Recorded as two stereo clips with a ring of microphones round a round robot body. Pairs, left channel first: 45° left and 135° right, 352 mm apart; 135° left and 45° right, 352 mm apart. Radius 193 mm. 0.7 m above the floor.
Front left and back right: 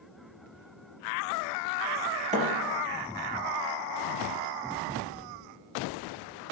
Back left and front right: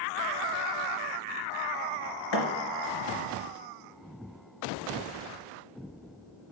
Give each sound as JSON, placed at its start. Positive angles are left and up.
{"t": 2.3, "sound": "a thud", "azimuth_deg": 155, "distance_m": 2.5}